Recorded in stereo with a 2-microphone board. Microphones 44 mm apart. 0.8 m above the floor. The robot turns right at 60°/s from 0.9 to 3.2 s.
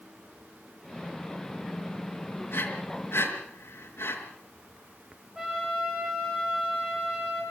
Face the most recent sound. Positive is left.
turn(degrees=-15)  # may be behind; listen again after turning